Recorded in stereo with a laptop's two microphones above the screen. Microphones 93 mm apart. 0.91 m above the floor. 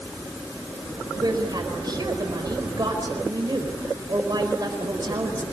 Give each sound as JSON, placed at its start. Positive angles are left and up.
{"t": 1.2, "sound": "a woman speaking", "side_deg": -50, "distance_m": 4.0}